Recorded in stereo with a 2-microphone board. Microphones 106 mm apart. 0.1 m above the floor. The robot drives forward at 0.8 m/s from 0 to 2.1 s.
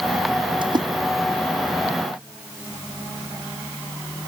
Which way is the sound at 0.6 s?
50° right (ahead or behind).